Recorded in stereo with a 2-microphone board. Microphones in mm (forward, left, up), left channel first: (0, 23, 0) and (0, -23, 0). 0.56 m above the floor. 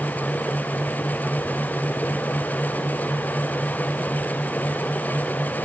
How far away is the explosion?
No explosion in this recording.